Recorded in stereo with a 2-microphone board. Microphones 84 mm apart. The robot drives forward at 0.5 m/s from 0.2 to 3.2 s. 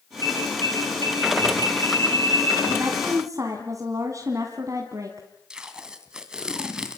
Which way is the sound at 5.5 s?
10° right (ahead or behind).